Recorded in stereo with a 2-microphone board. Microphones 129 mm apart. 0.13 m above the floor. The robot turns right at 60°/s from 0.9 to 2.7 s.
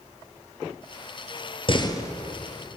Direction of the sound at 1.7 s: 45° left (ahead or behind).